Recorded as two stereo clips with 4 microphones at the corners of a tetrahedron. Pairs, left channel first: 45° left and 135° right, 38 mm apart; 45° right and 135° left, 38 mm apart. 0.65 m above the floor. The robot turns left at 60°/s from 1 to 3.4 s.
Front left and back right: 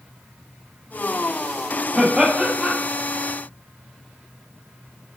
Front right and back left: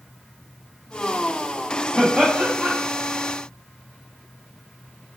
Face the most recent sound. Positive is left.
turn(degrees=90)